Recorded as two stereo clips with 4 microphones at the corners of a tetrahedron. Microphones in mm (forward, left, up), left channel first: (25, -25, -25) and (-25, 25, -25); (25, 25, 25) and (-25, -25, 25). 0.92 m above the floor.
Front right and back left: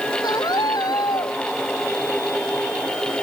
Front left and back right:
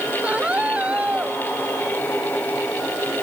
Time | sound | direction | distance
0.2 | a scream | 60° right | ?